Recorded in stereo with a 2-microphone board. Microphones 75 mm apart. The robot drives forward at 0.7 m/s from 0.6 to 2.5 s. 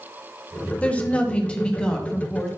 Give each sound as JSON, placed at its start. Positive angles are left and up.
{"t": 0.8, "sound": "a woman speaking", "side_deg": 20, "distance_m": 0.9}